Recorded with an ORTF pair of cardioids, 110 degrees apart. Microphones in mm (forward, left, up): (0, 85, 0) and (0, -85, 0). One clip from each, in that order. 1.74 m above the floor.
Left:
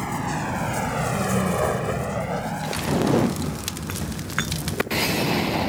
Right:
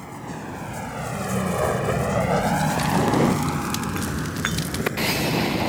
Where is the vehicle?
55° left; by 5.7 s 80° right.